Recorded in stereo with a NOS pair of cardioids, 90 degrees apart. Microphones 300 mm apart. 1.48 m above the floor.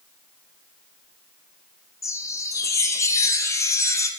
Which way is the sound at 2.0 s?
10° left.